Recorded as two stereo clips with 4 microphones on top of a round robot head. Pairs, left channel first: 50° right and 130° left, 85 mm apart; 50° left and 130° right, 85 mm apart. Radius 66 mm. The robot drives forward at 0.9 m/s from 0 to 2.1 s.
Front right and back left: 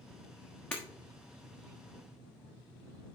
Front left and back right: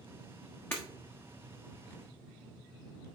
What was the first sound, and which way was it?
Breaking glass, 5° left.